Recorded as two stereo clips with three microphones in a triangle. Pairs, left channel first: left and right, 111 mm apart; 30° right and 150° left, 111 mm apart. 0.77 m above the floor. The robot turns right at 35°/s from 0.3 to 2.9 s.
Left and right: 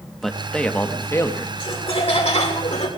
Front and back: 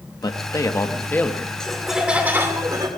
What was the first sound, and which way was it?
A man speaking, 5° left.